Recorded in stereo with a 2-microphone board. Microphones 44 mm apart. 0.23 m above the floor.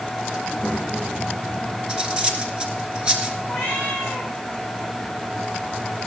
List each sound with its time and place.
0.4 s a child speaking: 15° left (ahead or behind), 6 m; by 1.8 s 5° left (ahead or behind), 6.5 m
1.9 s cutlery clinking: 20° right (ahead or behind), 2 m
3.5 s a cat meowing: 15° left (ahead or behind), 6.5 m